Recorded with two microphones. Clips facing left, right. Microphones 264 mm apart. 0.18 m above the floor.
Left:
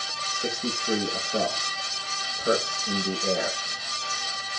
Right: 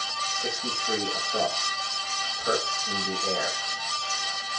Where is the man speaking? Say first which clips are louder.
Left 4 dB; 35° left (ahead or behind), 8 m.